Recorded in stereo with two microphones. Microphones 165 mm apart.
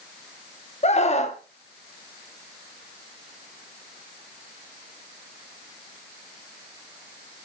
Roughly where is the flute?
No flute in this recording.